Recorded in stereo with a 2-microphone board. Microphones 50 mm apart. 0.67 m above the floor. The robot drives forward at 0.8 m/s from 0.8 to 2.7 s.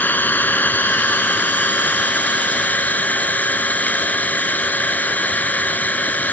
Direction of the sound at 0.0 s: 35° left (ahead or behind).